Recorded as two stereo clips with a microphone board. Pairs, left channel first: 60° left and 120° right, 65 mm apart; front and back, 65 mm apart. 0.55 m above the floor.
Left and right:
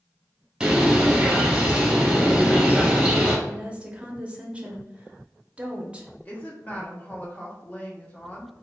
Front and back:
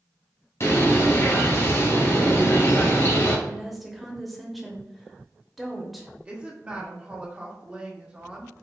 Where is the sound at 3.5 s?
90° right, 0.7 m.